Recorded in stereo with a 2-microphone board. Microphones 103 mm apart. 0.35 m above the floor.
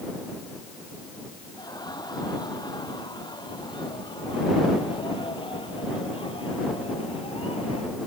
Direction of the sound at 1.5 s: 40° left (ahead or behind).